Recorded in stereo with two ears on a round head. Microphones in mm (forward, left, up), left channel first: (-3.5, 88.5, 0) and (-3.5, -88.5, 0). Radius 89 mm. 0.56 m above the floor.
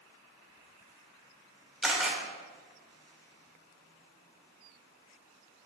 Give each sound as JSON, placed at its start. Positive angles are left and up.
{"t": 1.8, "sound": "a camera shutter", "side_deg": -5, "distance_m": 1.8}